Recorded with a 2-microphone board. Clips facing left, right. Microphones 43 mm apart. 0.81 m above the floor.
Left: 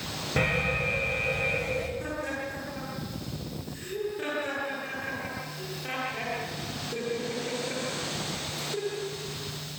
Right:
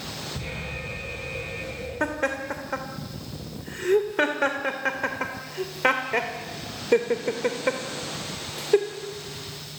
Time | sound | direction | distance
0.4 | an alarm | 65° left (ahead or behind) | 5.5 m
2.0 | laughter | 70° right (ahead or behind) | 2.5 m